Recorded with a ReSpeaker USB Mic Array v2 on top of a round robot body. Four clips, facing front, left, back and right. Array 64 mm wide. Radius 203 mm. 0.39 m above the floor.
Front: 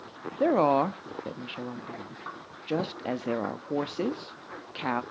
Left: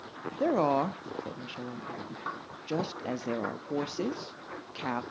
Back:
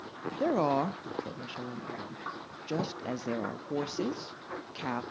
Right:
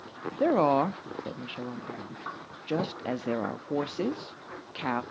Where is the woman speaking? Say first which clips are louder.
Right 3 dB, front 5 dB; 35° right, 0.8 m.